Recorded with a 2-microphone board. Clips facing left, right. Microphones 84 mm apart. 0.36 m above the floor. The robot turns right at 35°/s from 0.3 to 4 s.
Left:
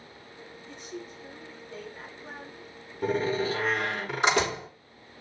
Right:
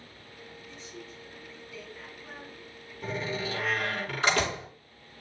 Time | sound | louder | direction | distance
0.7 | a woman speaking | left 7 dB | 90° left | 5 m
3.0 | a door slam | left 7 dB | 125° left | 5.5 m